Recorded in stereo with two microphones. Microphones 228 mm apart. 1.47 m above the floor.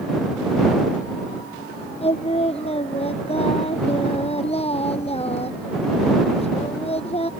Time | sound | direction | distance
2.0 | singing | 25° left (ahead or behind) | ?